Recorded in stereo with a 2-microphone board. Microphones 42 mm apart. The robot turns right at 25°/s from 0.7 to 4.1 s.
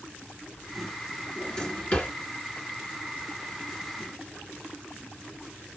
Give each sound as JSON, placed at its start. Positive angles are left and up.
{"t": 1.4, "sound": "a drawer", "side_deg": 10, "distance_m": 2.0}